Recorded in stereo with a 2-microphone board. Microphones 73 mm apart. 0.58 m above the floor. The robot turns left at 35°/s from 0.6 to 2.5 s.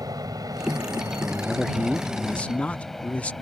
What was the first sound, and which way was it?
An aircraft, 55° right (ahead or behind).